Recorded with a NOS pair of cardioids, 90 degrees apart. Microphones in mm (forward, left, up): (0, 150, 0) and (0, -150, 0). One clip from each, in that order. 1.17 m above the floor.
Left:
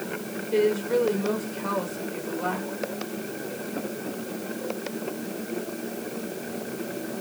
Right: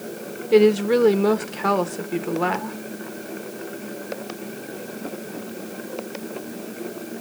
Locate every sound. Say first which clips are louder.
0.5 s a woman speaking: right 7 dB; 65° right, 1.1 m